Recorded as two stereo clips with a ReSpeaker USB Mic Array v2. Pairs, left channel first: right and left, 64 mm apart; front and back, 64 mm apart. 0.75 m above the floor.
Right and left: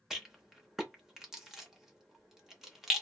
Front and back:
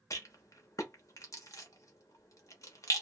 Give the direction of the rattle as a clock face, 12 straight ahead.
12 o'clock.